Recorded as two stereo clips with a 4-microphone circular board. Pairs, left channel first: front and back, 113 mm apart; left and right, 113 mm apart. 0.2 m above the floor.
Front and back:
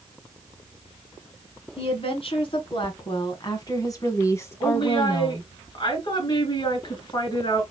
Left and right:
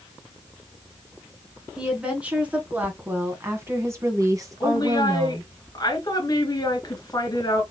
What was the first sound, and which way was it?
A woman speaking, 10° right.